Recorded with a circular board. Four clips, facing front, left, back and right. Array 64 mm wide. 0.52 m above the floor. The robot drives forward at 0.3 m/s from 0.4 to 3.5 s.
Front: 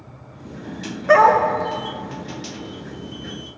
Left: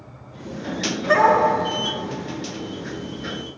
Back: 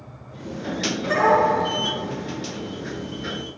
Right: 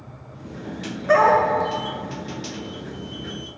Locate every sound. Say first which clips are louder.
1.1 s a dog barking: even, front 5 dB; 10° right, 1.1 m